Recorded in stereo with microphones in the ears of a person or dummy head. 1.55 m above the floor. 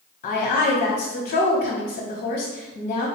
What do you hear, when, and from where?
0.2 s a woman speaking: 40° left (ahead or behind), 0.9 m